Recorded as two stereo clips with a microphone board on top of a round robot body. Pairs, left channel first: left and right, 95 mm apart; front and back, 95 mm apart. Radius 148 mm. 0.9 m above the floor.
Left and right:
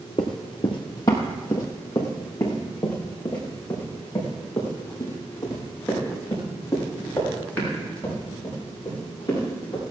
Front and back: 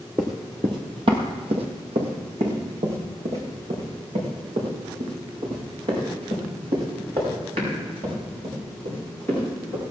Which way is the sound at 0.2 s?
115° left.